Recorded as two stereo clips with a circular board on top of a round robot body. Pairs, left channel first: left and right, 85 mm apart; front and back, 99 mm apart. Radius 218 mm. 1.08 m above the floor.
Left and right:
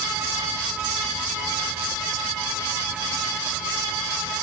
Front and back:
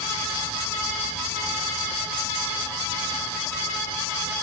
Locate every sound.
Only background noise.